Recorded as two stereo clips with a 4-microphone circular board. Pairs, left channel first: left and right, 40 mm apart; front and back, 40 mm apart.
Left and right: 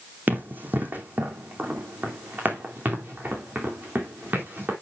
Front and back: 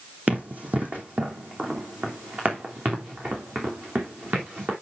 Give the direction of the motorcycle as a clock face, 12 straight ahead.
No motorcycle in this recording.